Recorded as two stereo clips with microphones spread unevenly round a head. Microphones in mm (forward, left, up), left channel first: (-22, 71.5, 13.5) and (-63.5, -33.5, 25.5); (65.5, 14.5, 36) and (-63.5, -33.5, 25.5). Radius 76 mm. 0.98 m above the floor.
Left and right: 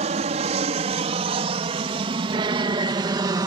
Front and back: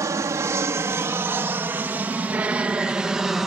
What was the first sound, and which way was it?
An aircraft, 95° right.